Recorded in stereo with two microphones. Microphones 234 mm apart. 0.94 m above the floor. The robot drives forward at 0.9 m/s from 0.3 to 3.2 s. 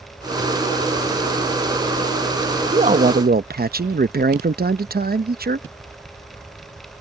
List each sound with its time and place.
2.7 s a man speaking: 30° right (ahead or behind); by 5.7 s 40° right (ahead or behind)